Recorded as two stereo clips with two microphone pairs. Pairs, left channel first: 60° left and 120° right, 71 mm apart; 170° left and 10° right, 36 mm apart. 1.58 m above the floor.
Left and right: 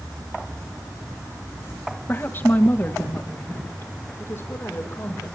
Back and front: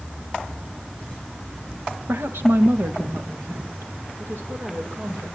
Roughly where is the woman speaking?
Ahead.